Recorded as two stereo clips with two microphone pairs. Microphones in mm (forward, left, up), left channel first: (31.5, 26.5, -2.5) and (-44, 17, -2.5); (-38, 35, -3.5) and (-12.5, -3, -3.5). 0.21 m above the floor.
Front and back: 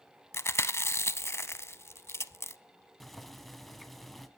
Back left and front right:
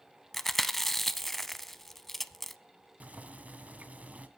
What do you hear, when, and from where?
0.3 s chewing: 45° left, 0.6 m
3.0 s boiling: 80° right, 1.4 m